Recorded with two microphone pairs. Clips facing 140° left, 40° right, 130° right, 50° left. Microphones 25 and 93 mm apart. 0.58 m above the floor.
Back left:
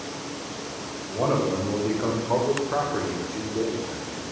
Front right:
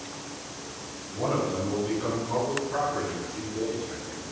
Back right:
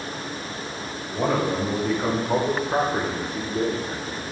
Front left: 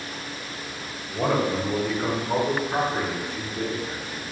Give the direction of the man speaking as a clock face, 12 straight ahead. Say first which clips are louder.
Back left 4 dB, even; 7 o'clock.